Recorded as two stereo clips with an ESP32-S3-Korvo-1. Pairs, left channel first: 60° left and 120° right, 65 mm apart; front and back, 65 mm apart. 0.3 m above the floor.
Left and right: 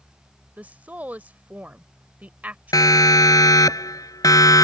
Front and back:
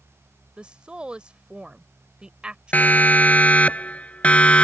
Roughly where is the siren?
Ahead left.